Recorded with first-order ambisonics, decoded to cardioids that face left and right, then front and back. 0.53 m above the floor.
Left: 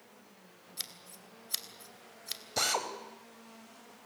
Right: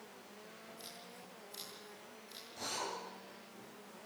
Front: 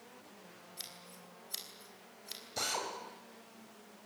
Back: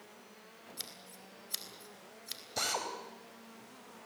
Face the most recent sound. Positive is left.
turn(degrees=100)